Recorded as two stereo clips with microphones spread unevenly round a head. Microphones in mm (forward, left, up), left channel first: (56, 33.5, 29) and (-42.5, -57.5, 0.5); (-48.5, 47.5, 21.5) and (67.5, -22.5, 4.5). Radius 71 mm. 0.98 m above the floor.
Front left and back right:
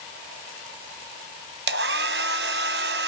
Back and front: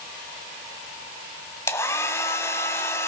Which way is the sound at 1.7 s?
145° right.